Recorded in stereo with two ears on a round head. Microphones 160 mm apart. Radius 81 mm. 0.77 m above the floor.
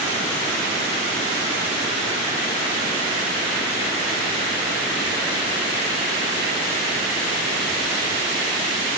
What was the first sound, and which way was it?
Only background noise.